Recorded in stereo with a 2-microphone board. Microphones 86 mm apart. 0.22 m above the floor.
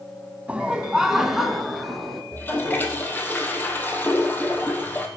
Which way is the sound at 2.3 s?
20° left (ahead or behind).